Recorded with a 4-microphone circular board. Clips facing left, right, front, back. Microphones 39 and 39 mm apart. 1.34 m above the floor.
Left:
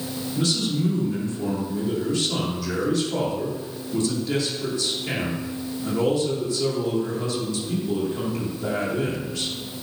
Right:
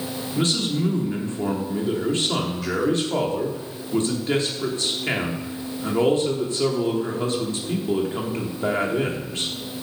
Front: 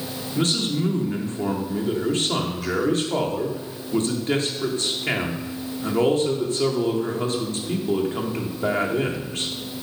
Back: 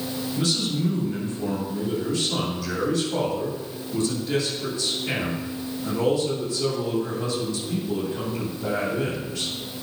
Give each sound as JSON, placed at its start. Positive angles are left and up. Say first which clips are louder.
{"t": 0.3, "sound": "a man speaking", "louder": "right 1 dB, front 3 dB", "azimuth_deg": -45, "distance_m": 3.0}